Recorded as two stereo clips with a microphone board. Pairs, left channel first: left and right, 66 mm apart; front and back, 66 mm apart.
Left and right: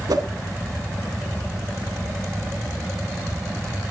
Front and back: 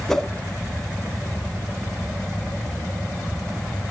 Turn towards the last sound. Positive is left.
turn(degrees=-80)